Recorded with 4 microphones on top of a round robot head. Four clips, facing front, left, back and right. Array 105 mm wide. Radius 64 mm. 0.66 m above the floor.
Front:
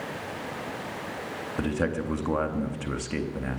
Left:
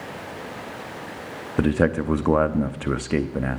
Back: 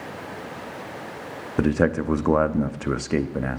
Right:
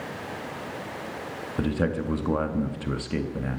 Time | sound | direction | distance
1.6 | a man speaking | 135° left | 0.8 m